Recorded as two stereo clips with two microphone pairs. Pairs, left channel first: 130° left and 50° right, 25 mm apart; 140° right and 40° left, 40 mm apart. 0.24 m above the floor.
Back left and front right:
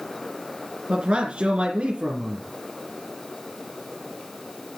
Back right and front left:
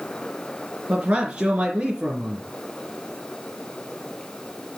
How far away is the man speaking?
About 3.5 m.